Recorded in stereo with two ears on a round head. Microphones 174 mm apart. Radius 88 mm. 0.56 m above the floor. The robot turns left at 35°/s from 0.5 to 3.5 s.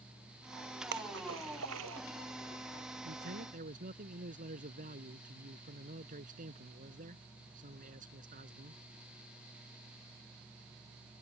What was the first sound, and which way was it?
A splash, 55° right (ahead or behind).